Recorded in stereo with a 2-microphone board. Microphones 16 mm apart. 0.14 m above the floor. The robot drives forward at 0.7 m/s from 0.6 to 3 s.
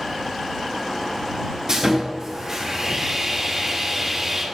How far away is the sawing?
About 3 m.